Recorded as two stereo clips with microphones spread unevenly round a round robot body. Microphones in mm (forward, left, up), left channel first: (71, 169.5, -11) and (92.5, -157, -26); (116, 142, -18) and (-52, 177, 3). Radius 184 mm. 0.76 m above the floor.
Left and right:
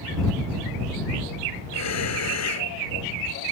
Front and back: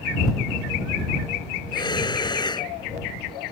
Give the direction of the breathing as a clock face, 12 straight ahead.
10 o'clock.